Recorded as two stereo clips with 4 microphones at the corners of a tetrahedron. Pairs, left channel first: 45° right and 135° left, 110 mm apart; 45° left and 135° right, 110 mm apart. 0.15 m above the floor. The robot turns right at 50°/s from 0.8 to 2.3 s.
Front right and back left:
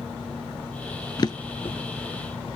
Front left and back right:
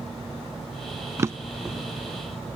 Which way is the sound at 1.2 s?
80° right.